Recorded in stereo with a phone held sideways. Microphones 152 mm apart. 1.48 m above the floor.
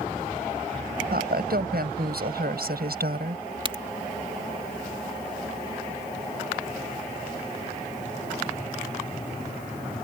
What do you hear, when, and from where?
1.1 s a woman speaking: 85° right
3.6 s a crack: 35° right (ahead or behind)